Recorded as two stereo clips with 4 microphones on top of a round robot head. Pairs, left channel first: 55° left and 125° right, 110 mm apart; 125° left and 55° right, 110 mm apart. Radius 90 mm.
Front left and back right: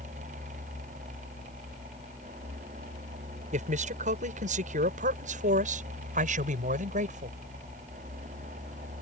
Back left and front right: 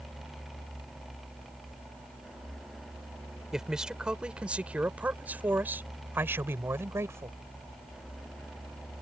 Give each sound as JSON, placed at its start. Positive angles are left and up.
{"t": 3.5, "sound": "a man speaking", "azimuth_deg": -140}